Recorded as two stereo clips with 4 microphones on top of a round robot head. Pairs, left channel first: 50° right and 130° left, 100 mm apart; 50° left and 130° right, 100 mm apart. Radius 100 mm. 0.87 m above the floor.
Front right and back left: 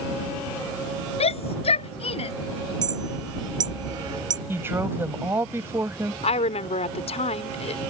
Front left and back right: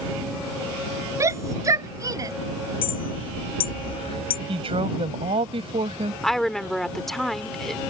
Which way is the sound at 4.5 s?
160° right.